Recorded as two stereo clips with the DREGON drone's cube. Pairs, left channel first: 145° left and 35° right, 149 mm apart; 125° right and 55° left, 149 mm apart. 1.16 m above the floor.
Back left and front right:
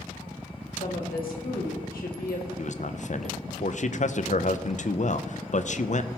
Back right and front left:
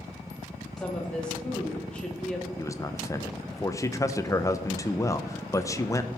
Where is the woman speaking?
155° left, 2.5 m.